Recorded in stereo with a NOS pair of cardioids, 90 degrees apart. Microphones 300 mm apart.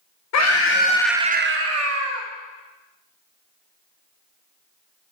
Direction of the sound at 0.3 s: 65° left.